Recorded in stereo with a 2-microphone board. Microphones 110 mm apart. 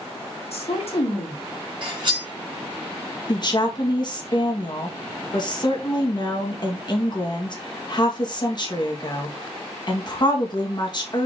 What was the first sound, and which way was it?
A woman speaking, 65° left (ahead or behind).